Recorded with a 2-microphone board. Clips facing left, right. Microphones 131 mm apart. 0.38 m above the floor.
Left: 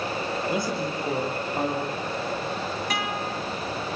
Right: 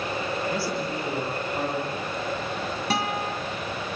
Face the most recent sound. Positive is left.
turn(degrees=-35)  # may be behind; listen again after turning